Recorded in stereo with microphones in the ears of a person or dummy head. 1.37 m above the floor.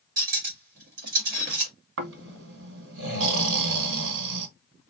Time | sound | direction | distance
0.2 | cutlery clinking | 45° right (ahead or behind) | 1.3 m
2.0 | snoring | 70° right (ahead or behind) | 1.2 m